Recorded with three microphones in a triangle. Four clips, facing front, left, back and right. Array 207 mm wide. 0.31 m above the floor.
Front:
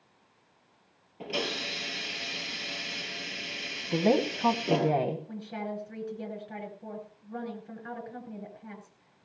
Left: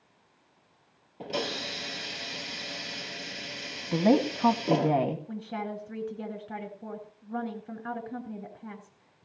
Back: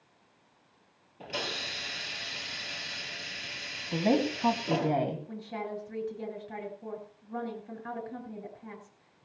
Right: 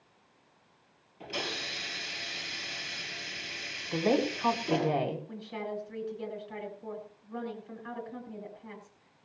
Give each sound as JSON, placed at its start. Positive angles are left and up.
{"t": 1.2, "sound": "a hiss", "azimuth_deg": 70, "distance_m": 3.5}
{"t": 3.9, "sound": "a woman speaking", "azimuth_deg": 85, "distance_m": 2.0}
{"t": 5.3, "sound": "a woman speaking", "azimuth_deg": 95, "distance_m": 4.5}